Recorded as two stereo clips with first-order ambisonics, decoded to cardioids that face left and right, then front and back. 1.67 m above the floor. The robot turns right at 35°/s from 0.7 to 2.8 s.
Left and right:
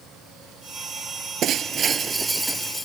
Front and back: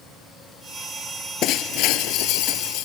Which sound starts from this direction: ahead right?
Breaking glass, at 1.4 s.